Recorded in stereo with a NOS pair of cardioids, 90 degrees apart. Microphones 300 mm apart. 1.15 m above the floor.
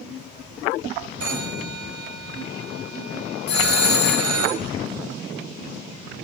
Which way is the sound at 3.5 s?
40° left.